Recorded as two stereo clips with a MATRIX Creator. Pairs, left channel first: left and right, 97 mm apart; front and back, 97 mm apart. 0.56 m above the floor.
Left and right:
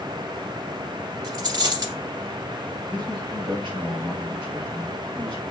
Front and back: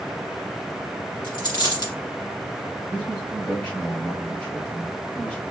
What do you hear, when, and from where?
1.2 s a dropped coin: 45° right, 2.5 m
2.9 s a man speaking: 75° right, 2.5 m